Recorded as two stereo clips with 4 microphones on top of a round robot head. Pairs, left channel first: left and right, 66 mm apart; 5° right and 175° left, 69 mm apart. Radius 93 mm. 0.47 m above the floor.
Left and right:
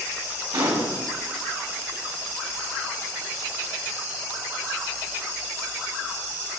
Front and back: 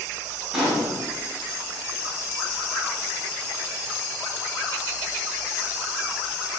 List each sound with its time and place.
0.5 s a gunshot: 100° right, 3.5 m